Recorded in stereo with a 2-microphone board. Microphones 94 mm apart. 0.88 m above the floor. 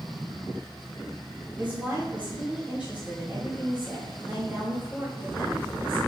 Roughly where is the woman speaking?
Centre.